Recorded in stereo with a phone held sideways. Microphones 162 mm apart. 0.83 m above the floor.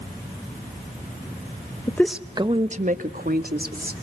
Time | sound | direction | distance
1.9 | a woman speaking | 20° left (ahead or behind) | 0.7 m